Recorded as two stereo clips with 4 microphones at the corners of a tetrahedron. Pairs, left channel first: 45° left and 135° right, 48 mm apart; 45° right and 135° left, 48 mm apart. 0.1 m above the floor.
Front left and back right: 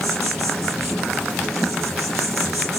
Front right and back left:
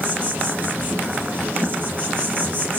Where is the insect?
130° left, 2.5 m.